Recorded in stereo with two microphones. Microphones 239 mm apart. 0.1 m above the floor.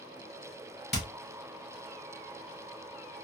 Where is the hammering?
45° left (ahead or behind), 2 m.